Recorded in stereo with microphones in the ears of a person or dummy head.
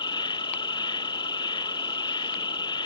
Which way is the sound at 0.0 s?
30° left (ahead or behind).